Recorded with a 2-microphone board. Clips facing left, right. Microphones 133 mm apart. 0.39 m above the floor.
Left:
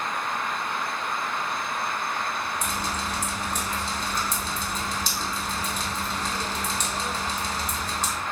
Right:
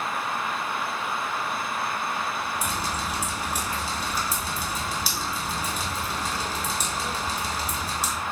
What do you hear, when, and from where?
2.6 s dripping: 10° right (ahead or behind), 0.8 m